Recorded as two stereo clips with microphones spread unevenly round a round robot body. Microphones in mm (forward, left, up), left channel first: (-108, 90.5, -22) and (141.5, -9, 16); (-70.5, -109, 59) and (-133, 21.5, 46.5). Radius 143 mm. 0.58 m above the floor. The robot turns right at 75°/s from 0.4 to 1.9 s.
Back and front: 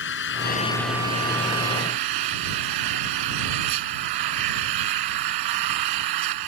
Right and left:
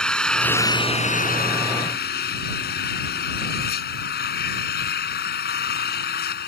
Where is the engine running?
150° right; by 6.5 s 35° right.